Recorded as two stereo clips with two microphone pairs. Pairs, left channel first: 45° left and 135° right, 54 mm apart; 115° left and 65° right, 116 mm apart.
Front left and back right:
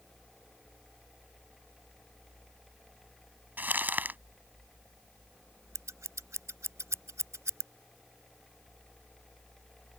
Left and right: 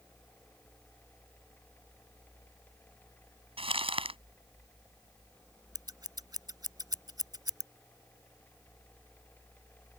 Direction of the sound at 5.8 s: 120° right.